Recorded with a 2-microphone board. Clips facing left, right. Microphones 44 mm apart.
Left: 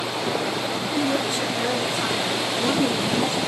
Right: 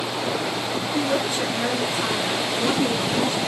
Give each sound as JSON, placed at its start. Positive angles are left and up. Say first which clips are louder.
{"t": 0.9, "sound": "a woman speaking", "louder": "even", "side_deg": -35, "distance_m": 1.6}